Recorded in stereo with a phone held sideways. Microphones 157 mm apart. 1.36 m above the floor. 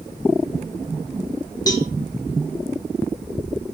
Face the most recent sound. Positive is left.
turn(degrees=25)  # may be behind; listen again after turning